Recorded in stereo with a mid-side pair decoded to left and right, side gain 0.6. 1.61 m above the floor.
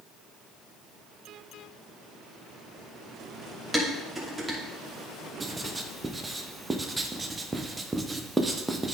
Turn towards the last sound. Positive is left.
turn(degrees=-15)